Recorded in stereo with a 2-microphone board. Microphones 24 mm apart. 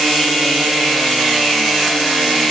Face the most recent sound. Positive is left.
No sound to turn to.